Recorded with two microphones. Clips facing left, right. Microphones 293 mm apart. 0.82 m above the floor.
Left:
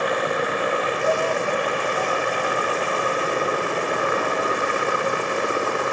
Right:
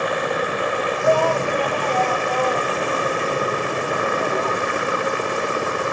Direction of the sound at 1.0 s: 70° right (ahead or behind).